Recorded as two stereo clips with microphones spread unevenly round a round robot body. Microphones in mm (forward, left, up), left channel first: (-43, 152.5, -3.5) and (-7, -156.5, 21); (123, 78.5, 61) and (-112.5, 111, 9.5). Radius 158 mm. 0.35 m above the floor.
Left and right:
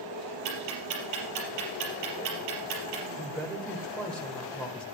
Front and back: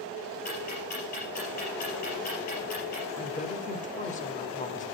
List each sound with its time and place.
0.5 s ticking: 70° right, 4.5 m
3.2 s a woman speaking: 25° left, 1.3 m